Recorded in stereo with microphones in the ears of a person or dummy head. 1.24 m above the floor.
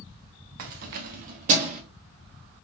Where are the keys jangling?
55° right (ahead or behind), 0.6 m; by 1.8 s 40° right (ahead or behind), 1.2 m.